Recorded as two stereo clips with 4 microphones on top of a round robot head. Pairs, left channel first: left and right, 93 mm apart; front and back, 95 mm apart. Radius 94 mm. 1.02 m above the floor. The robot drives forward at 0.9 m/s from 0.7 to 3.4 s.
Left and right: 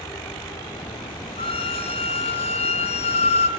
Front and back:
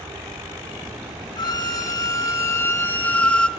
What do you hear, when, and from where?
1.4 s a violin: 45° left, 3 m; by 3.5 s 80° left, 2.5 m